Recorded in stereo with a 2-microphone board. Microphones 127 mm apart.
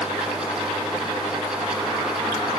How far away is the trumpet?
I don't hear a trumpet.